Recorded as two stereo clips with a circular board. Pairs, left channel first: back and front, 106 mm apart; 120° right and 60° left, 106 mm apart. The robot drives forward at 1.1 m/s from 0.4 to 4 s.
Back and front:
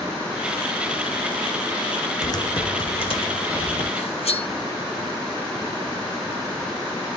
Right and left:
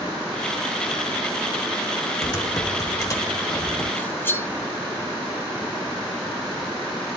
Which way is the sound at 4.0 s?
170° left.